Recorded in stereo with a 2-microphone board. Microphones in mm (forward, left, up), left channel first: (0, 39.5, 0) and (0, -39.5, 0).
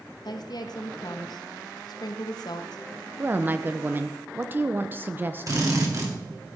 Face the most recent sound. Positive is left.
turn(degrees=-45)  # may be behind; listen again after turning